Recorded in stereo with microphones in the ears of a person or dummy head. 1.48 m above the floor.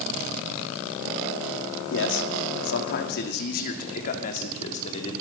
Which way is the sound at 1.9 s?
75° left (ahead or behind).